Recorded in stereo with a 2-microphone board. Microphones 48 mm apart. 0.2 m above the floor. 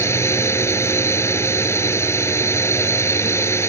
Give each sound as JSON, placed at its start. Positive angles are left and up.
{"t": 0.0, "sound": "a drone", "side_deg": 65}